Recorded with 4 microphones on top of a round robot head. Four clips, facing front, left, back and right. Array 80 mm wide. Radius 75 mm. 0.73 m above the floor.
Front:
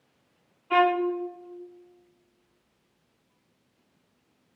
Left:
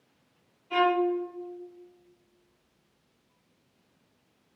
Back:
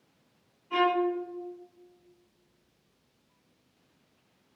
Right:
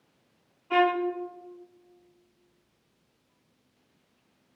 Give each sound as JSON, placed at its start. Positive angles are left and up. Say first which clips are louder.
{"t": 0.7, "sound": "a violin", "louder": "even, front 4 dB", "azimuth_deg": -30, "distance_m": 0.5}